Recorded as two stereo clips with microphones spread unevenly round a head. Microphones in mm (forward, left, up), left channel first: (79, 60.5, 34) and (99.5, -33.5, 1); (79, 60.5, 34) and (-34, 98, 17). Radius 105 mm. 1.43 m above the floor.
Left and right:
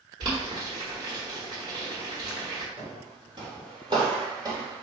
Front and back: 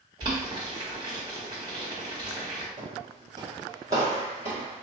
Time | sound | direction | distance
0.2 | boiling | 135° right | 1.4 m
2.8 | footsteps | 135° right | 2 m